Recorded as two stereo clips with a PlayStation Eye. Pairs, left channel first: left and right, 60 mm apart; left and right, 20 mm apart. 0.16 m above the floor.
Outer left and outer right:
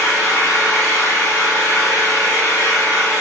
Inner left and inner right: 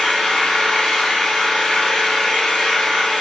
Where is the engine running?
70° left (ahead or behind), 1.1 m.